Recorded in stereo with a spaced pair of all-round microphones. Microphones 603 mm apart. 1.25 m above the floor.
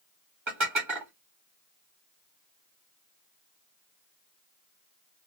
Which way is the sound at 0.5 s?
50° right (ahead or behind).